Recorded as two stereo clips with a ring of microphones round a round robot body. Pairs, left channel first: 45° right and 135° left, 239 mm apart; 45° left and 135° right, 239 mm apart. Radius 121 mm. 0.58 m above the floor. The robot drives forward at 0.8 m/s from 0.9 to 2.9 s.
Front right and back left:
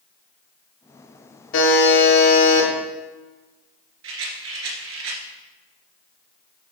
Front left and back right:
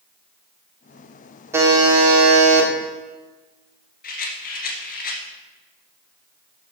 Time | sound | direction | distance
1.5 | a buzzer | 60° right | 1.9 m
4.0 | a rattle | 100° left | 2 m